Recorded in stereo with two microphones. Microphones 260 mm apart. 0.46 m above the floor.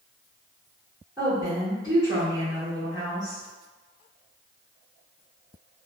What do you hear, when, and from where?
1.2 s a woman speaking: 10° right (ahead or behind), 1.4 m